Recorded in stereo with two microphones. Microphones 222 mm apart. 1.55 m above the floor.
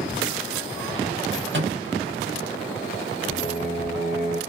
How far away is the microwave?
About 1.1 m.